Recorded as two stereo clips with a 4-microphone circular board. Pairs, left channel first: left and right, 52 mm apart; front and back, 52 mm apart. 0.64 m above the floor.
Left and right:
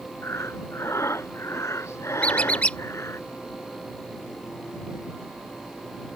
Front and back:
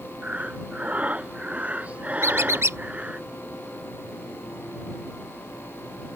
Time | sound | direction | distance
0.2 | breathing | 120° left | ?
2.2 | a squeak | 155° left | ?